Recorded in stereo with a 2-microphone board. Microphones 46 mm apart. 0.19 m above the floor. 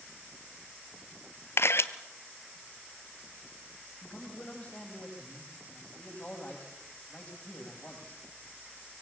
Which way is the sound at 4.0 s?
30° left (ahead or behind).